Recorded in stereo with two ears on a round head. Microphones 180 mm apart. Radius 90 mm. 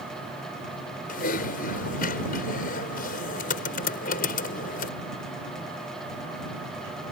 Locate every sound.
1.1 s typing on a keyboard: 45° left (ahead or behind)